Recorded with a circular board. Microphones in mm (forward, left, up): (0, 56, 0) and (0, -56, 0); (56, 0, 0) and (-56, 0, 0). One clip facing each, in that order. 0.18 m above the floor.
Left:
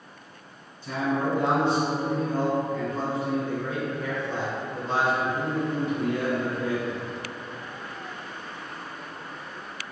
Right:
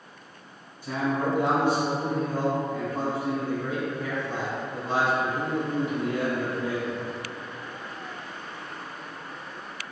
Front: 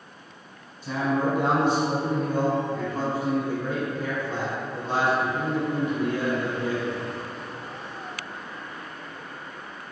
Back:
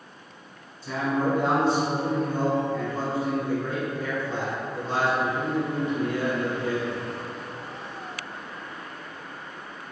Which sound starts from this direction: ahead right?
A man speaking, at 0.8 s.